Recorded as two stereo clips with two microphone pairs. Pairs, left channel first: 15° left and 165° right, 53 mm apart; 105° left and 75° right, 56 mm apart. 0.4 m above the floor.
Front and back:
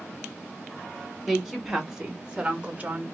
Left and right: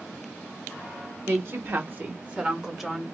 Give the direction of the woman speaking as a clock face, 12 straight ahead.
3 o'clock.